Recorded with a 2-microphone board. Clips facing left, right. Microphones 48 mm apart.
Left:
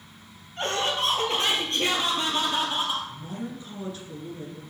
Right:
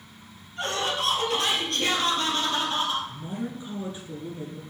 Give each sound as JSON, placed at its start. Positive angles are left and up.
{"t": 0.6, "sound": "laughter", "side_deg": 40, "distance_m": 1.9}
{"t": 3.1, "sound": "a woman speaking", "side_deg": -20, "distance_m": 1.4}